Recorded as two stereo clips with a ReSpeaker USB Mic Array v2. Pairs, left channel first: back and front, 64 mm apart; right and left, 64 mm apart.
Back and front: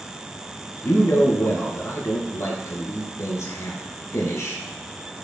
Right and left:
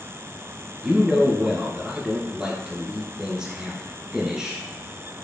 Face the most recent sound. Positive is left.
turn(degrees=165)